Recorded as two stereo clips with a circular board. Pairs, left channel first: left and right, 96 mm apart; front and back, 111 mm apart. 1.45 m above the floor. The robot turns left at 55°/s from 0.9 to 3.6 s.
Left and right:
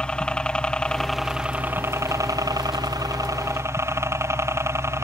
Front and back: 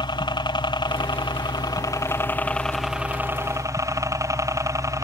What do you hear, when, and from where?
0.0 s a helicopter: 15° left; by 5.0 s 135° right